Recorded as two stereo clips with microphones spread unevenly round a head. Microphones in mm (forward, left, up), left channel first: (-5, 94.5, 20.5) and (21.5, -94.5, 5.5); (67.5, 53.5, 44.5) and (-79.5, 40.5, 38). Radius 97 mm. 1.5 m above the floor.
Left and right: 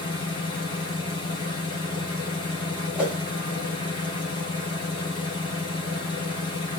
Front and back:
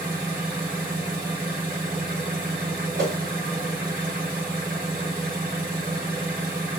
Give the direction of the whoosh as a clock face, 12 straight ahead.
6 o'clock.